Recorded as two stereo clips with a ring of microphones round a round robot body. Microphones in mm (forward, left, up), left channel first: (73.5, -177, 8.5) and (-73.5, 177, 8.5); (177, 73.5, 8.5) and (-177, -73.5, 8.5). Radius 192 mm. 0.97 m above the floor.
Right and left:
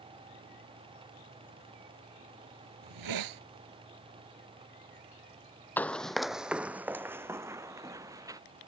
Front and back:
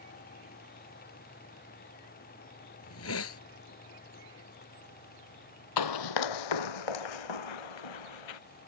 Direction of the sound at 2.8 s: 75° left.